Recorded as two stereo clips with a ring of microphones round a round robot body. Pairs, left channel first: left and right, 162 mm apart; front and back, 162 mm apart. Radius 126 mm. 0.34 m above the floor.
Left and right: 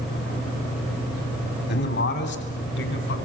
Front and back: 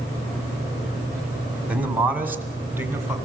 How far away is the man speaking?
About 2.5 m.